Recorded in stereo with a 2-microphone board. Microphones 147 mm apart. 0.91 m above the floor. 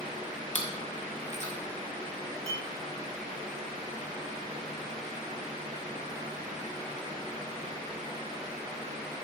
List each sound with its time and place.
0.6 s chewing: 55° left (ahead or behind), 1.6 m
2.5 s a clink: 70° left (ahead or behind), 2 m